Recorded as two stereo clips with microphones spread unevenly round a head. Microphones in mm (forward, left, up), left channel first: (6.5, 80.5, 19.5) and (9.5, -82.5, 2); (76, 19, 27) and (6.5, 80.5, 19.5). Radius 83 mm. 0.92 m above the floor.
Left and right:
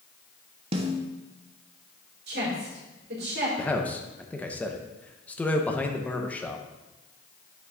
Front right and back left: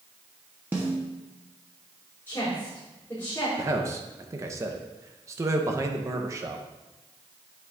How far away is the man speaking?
About 0.8 m.